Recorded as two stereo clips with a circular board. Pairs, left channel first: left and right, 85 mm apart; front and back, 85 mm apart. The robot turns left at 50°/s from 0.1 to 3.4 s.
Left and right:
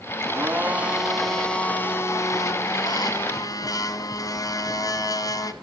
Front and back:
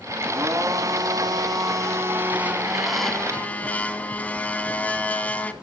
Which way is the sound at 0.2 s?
135° right.